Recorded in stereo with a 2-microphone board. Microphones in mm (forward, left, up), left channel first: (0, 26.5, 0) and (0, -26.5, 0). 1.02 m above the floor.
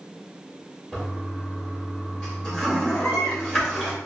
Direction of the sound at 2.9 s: 55° left (ahead or behind).